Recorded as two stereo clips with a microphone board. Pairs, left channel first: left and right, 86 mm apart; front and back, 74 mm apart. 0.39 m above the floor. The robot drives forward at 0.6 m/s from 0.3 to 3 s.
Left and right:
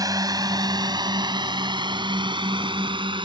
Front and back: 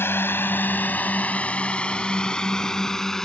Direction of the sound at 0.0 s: 55° right.